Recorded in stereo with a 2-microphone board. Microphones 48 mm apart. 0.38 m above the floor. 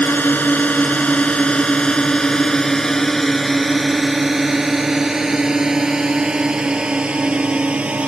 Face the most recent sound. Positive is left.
turn(degrees=-25)  # may be behind; listen again after turning